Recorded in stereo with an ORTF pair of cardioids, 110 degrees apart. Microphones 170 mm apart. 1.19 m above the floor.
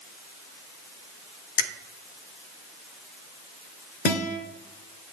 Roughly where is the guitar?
Left.